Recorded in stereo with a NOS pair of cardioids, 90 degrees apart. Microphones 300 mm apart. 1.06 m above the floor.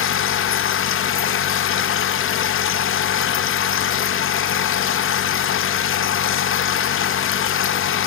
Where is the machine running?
45° left, 0.7 m.